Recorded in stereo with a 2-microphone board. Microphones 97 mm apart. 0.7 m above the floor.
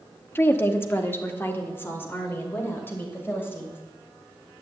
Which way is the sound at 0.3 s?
25° left (ahead or behind).